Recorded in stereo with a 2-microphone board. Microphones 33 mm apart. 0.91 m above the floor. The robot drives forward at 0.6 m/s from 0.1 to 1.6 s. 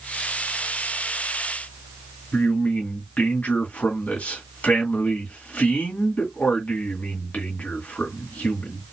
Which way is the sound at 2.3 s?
55° left (ahead or behind).